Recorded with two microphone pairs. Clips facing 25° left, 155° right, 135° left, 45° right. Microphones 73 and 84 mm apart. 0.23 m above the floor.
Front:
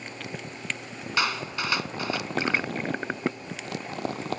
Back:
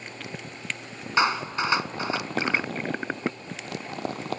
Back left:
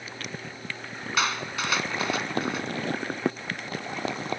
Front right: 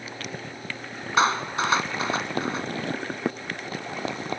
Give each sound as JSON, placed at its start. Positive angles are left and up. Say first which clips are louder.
{"t": 1.2, "sound": "a clap", "louder": "back 5 dB, front right 6 dB", "azimuth_deg": -95}